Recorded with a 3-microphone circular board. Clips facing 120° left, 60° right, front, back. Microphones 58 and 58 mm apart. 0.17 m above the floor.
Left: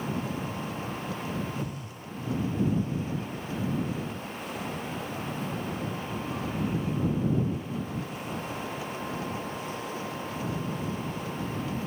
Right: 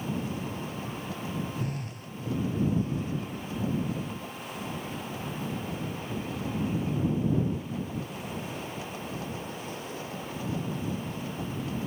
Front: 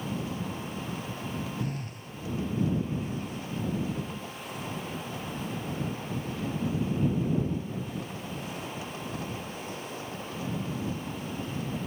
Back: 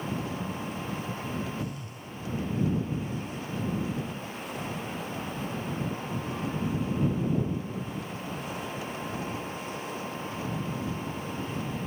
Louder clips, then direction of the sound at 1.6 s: Right 1 dB, front 1 dB; 35° right.